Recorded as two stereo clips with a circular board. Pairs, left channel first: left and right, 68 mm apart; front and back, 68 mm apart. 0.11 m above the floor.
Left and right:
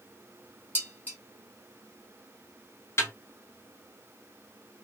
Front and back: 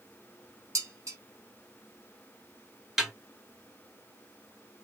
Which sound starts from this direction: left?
A snare drum, at 3.0 s.